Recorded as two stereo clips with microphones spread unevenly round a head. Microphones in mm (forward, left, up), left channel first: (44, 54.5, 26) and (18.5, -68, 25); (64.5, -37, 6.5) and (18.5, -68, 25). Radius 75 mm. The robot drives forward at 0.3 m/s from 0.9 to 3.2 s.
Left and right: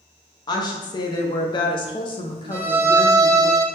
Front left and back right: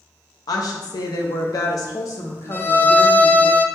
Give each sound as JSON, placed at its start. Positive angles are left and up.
{"t": 0.5, "sound": "a woman speaking", "azimuth_deg": 25, "distance_m": 0.7}
{"t": 2.5, "sound": "a violin", "azimuth_deg": -25, "distance_m": 0.6}